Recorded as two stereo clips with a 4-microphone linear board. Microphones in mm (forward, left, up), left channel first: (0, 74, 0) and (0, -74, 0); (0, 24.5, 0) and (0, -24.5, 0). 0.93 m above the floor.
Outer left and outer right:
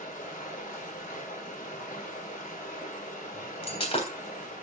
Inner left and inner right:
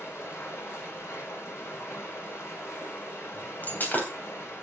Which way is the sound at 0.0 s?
65° left (ahead or behind).